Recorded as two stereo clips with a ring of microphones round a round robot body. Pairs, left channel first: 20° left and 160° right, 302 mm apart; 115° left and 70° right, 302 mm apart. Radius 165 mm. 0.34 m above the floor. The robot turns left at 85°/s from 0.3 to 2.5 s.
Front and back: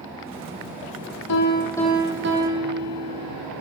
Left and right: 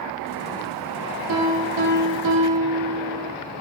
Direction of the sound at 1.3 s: 20° right.